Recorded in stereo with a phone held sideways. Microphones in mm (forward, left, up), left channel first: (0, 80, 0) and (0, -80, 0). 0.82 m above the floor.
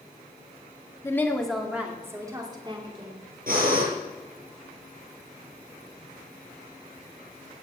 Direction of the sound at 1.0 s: 15° left (ahead or behind).